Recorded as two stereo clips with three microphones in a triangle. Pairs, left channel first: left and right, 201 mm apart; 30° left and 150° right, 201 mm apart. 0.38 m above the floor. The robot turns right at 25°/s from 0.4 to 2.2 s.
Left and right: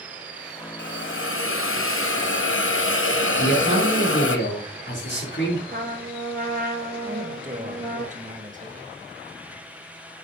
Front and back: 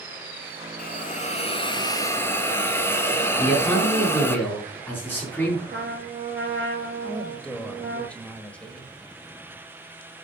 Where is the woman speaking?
55° right, 1.5 m.